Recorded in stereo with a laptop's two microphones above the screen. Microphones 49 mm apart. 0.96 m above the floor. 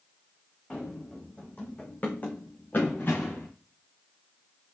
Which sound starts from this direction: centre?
Running footsteps, at 0.7 s.